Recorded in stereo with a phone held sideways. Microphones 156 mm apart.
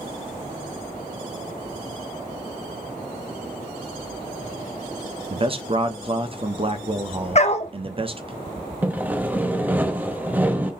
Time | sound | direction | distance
5.3 | a man speaking | 35° right (ahead or behind) | 0.7 m
7.3 | a dog barking | 45° left (ahead or behind) | 0.5 m
8.8 | sawing | 10° right (ahead or behind) | 0.6 m